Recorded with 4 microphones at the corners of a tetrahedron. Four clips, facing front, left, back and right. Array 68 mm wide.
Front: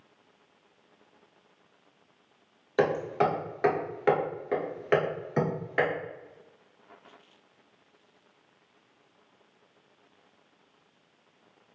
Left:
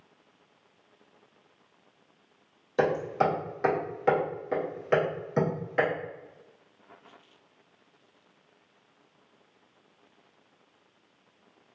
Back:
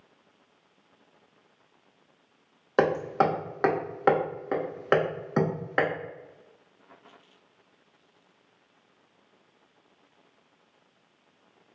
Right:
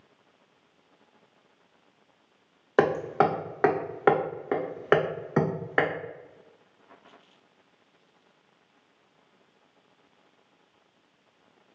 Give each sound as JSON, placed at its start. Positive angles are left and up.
{"t": 2.8, "sound": "hammering", "azimuth_deg": -115, "distance_m": 0.7}